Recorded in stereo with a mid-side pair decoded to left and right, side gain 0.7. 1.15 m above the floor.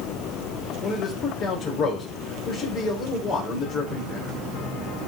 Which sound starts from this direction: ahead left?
A man speaking, at 0.8 s.